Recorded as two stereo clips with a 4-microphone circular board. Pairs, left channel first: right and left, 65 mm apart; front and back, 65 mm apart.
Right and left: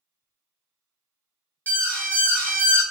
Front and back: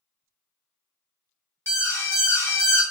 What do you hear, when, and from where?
1.7 s an alarm: 35° right, 1.4 m